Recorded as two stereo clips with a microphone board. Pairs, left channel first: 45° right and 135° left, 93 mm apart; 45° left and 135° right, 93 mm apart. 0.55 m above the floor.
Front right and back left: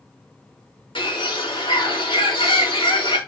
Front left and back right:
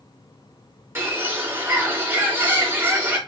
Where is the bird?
70° right, 4 m.